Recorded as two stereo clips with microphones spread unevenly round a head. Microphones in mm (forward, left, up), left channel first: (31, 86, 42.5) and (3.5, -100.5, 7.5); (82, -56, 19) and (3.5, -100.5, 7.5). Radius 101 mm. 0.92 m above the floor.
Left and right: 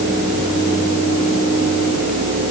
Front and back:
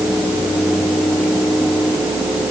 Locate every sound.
Only background noise.